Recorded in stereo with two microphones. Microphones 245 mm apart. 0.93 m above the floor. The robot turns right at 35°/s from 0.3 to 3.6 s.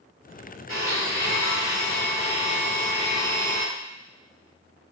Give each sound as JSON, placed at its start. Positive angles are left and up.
{"t": 0.7, "sound": "a blender", "azimuth_deg": 70, "distance_m": 1.7}